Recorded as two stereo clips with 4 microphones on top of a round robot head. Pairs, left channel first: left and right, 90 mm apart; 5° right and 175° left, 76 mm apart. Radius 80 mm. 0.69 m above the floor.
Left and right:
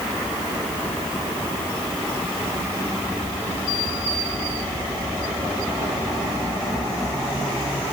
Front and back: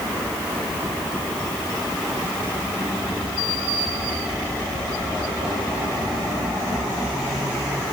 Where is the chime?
No chime in this recording.